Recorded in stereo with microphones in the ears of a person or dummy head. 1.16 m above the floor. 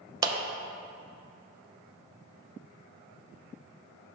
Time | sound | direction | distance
0.2 | a clap | 20° right (ahead or behind) | 0.7 m